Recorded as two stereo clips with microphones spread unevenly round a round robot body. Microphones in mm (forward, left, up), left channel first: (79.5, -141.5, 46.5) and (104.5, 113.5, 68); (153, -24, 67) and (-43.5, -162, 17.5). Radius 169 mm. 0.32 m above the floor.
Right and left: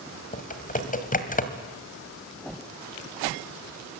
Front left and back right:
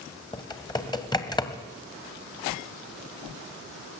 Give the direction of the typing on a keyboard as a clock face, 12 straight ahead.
1 o'clock.